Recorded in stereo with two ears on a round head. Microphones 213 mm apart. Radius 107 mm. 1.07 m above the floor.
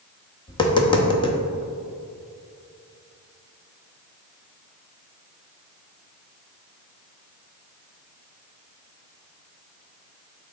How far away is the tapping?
About 0.8 m.